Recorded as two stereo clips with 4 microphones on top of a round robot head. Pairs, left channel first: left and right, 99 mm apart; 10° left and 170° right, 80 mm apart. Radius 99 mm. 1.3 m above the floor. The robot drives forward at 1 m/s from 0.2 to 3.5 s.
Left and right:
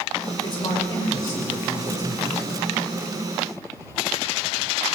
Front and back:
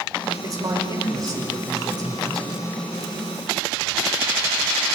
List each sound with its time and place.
0.4 s a man speaking: 145° left, 6.5 m; by 2.6 s 150° left, 8.5 m